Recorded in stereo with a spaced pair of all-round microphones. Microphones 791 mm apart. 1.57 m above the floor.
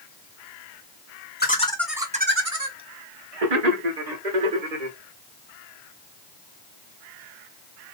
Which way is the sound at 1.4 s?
15° left (ahead or behind).